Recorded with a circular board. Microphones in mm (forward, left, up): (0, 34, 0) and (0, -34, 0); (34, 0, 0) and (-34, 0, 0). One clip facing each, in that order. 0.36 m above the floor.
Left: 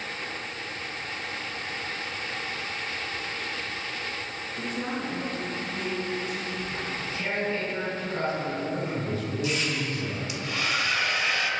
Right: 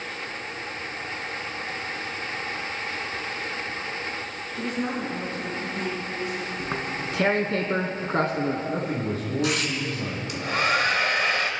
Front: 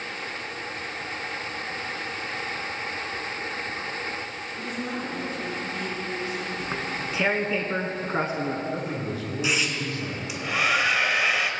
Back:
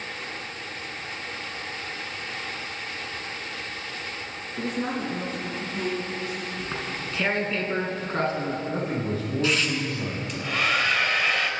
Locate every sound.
4.6 s a woman speaking: 165° right, 5 m; by 6.5 s 160° right, 4 m
6.6 s tearing paper: 80° right, 2 m
8.7 s a man speaking: 135° right, 3 m
10.3 s a hair dryer: 80° right, 1.5 m